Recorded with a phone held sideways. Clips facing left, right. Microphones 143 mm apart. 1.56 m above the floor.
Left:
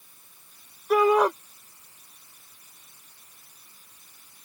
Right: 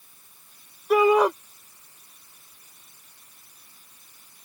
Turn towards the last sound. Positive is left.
turn(degrees=-5)  # may be behind; listen again after turning